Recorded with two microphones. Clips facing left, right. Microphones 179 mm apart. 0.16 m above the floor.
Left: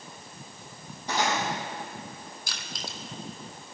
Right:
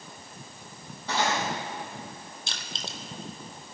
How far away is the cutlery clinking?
About 4 m.